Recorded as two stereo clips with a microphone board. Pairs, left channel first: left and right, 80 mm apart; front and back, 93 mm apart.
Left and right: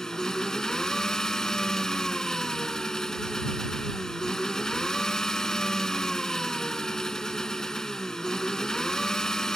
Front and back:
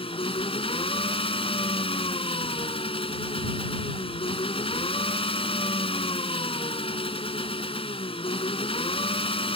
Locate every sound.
0.0 s an engine running: 5° left